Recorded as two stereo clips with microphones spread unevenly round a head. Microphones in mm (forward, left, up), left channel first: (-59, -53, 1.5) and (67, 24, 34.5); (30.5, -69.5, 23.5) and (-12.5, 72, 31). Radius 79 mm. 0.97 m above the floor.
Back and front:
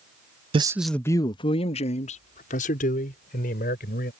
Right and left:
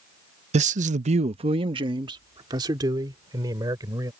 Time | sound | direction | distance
0.5 | a man speaking | 85° left | ?